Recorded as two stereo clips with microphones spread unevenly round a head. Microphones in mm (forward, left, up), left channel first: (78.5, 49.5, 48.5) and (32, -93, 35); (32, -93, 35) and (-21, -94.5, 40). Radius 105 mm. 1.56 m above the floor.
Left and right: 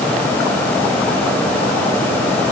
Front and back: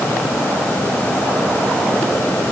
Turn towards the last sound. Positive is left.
No sound to turn to.